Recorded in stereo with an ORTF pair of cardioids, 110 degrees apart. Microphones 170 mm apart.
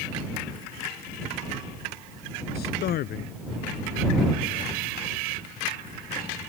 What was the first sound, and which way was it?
A man speaking, 65° left.